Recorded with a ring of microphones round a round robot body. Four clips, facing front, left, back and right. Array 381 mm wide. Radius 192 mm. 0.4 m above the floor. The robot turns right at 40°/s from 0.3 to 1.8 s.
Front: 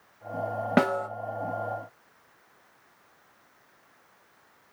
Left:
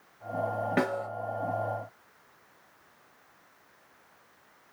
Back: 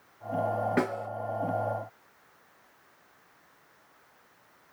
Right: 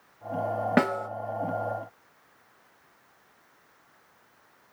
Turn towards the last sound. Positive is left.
turn(degrees=0)